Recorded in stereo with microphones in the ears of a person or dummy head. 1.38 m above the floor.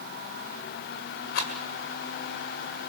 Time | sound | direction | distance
1.3 | a rattle | 50° left (ahead or behind) | 2 m